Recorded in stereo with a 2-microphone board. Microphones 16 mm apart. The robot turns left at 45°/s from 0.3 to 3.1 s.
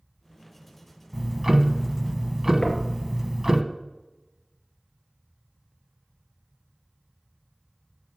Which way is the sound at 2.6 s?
40° left (ahead or behind).